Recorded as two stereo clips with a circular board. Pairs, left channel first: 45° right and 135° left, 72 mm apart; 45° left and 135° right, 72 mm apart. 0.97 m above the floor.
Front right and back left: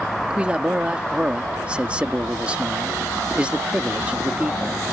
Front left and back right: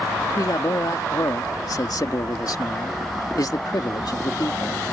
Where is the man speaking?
65° left.